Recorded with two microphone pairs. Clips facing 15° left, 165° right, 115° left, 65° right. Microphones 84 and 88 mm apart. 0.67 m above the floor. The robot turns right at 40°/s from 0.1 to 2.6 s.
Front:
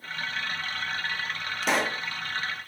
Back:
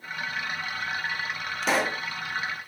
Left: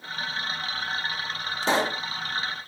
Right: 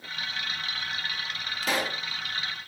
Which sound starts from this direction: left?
A pop, at 1.6 s.